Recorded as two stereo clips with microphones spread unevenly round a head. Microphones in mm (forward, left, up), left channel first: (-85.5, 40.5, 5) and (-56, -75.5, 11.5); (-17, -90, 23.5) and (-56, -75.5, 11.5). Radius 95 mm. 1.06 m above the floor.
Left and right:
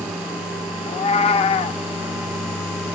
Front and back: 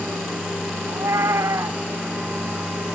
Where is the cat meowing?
115° left, 0.5 m.